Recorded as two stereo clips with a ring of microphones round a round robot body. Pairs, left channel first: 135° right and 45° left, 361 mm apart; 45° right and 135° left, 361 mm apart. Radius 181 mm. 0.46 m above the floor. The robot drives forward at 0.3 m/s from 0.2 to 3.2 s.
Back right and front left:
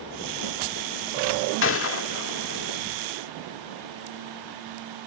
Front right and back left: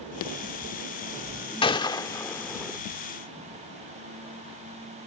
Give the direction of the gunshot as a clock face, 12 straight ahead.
4 o'clock.